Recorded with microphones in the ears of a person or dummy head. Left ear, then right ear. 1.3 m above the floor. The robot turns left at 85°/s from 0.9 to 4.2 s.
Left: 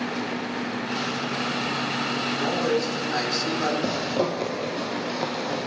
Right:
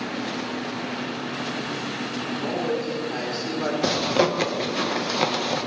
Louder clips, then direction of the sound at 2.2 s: Left 1 dB; 140° left.